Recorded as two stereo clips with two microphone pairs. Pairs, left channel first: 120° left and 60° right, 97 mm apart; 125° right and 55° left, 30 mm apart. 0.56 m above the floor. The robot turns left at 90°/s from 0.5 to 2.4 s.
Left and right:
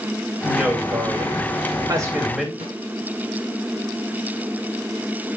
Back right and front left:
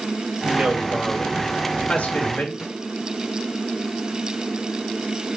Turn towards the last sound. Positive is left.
turn(degrees=-55)